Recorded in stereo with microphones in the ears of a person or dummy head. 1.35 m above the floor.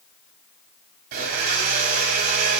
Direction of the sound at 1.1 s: 50° right (ahead or behind).